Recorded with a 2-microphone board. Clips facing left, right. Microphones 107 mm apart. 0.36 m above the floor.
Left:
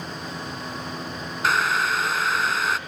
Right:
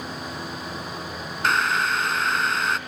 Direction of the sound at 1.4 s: Centre (ahead or behind).